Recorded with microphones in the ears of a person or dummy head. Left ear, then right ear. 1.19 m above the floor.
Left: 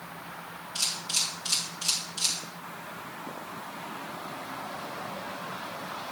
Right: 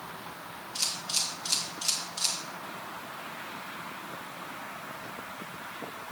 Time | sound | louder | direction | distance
0.8 | a camera shutter | left 2 dB | 10° right (ahead or behind) | 1.8 m